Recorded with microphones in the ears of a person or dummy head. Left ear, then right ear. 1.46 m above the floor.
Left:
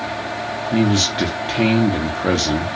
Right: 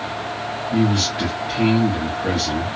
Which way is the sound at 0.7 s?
45° left (ahead or behind).